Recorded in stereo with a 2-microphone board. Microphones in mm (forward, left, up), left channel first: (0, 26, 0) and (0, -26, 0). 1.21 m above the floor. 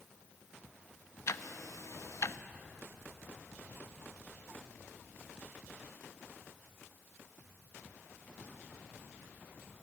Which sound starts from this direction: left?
Ticking, at 1.3 s.